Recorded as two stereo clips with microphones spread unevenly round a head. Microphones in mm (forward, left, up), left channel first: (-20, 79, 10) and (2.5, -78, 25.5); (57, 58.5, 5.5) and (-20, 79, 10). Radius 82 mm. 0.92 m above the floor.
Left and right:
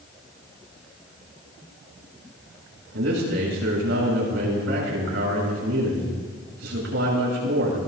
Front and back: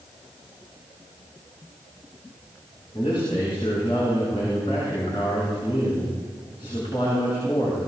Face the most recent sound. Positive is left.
turn(degrees=-75)